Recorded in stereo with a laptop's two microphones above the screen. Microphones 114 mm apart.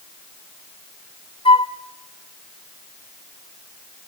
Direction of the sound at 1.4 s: 50° left (ahead or behind).